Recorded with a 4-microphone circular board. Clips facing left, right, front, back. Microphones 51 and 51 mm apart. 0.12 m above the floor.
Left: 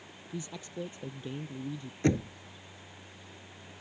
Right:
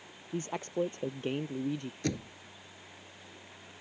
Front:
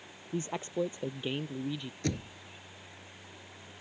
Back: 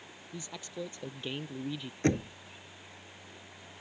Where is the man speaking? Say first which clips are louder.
Right 6 dB, front 9 dB; 45° right; by 1.9 s 95° right.